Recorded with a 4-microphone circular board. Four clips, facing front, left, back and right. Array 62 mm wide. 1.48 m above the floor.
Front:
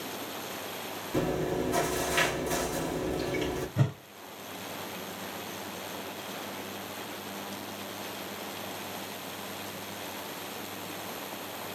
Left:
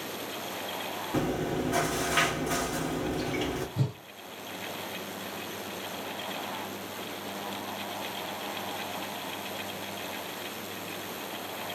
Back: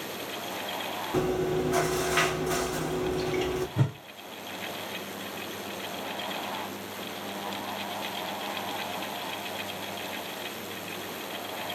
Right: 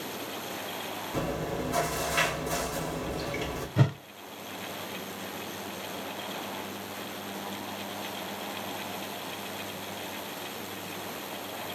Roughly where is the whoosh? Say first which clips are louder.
Right 6 dB, back 1 dB; right.